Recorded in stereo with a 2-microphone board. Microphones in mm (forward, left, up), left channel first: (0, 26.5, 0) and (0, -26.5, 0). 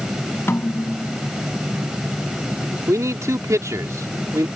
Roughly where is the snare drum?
Left.